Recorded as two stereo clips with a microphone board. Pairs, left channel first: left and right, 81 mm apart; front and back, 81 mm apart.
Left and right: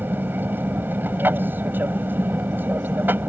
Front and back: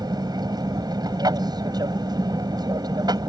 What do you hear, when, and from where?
0.0 s an aircraft: 155° right